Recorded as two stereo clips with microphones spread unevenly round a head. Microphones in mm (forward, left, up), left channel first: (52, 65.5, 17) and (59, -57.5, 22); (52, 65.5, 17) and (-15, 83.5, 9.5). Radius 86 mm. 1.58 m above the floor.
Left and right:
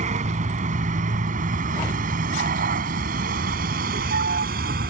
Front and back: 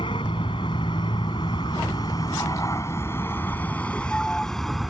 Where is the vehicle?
65° right; by 4.9 s 105° right.